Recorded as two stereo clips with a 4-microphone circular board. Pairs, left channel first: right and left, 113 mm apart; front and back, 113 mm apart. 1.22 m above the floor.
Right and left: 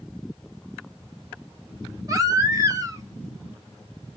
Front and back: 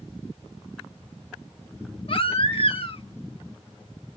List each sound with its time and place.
2.1 s a baby crying: 35° left, 1.0 m